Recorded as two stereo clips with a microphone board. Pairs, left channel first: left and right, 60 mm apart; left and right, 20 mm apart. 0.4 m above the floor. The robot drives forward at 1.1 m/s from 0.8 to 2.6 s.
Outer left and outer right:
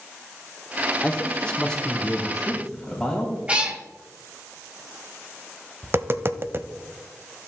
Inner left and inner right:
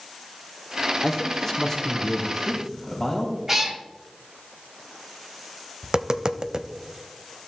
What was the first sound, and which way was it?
A man speaking, 20° left (ahead or behind).